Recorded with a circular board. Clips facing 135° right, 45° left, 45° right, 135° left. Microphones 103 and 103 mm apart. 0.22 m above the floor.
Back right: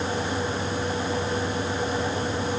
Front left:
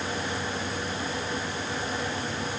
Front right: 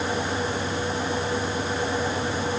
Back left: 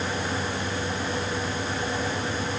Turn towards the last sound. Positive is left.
No sound to turn to.